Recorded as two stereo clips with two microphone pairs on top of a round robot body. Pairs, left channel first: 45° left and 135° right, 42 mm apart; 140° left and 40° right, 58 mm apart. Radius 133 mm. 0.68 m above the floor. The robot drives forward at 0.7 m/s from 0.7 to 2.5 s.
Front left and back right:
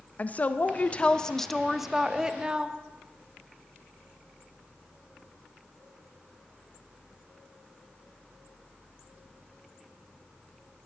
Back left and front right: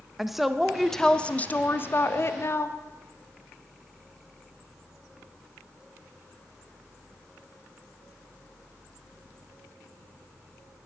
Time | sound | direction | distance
0.2 | a woman speaking | 65° left | 0.9 m